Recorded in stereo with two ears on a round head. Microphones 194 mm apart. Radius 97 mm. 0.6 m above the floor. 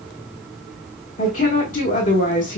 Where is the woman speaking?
40° left (ahead or behind), 1.2 m.